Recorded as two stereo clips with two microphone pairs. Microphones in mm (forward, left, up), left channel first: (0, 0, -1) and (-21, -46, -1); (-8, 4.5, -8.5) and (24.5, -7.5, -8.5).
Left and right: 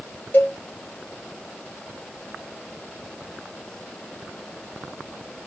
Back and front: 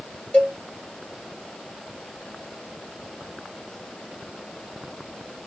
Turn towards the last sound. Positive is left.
turn(degrees=110)